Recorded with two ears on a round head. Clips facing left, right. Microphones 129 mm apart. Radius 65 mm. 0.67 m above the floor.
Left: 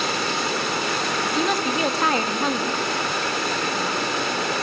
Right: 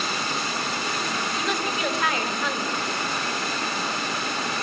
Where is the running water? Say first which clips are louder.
Left 4 dB; 50° left (ahead or behind), 1.0 m.